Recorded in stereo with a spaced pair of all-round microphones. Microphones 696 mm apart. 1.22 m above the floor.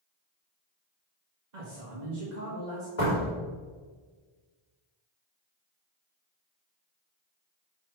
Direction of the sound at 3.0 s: 55° left (ahead or behind).